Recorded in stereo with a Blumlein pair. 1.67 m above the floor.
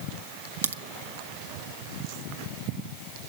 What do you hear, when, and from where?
0.6 s a crack: 70° right, 0.7 m